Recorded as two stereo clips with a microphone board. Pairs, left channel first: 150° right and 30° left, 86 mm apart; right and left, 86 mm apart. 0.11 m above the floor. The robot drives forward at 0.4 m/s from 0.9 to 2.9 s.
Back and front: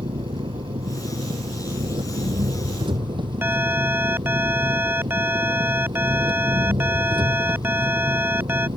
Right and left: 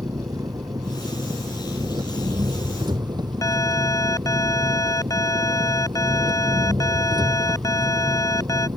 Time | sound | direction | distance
0.0 | an engine running | 45° left | ?
3.4 | an alarm | 40° right | ?